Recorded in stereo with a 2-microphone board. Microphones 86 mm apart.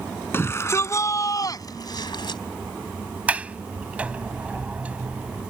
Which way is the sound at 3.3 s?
15° right (ahead or behind).